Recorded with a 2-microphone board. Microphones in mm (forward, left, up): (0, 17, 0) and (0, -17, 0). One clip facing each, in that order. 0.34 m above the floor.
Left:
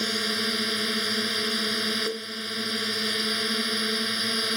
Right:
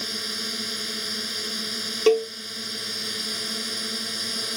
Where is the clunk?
I don't hear a clunk.